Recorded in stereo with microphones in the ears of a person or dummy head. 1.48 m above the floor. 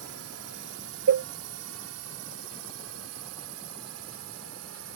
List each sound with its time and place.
0.0 s a drone: 75° right (ahead or behind); by 5.0 s 80° right
1.1 s a cowbell: 65° right (ahead or behind)